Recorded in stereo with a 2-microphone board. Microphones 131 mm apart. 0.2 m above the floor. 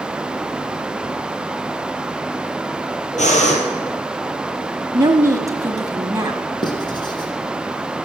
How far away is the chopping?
I don't hear chopping.